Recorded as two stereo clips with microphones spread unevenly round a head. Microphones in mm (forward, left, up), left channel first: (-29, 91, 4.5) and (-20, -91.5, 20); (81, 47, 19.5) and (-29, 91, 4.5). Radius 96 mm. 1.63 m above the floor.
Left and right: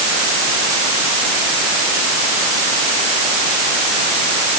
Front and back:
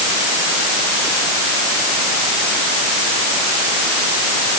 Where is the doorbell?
No doorbell in this recording.